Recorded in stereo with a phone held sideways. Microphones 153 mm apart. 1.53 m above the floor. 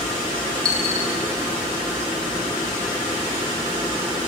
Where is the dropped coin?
25° right (ahead or behind), 4.5 m.